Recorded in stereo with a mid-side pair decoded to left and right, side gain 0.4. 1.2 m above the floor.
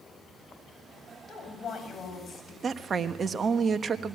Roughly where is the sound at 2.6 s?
Ahead right.